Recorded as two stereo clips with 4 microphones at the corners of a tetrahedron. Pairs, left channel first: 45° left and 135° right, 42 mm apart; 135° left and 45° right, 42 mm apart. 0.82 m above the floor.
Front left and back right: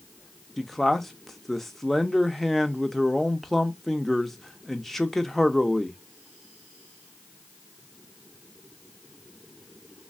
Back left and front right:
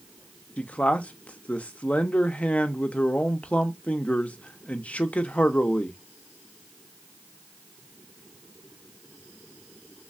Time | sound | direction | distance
0.6 | a man speaking | 125° left | 0.5 m